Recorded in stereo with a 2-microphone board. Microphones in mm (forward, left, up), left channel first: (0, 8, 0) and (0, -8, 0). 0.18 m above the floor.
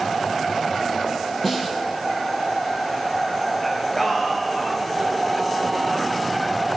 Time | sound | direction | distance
1.4 | a snare drum | 5° left (ahead or behind) | 4.5 m
3.6 | singing | 15° left (ahead or behind) | 3.5 m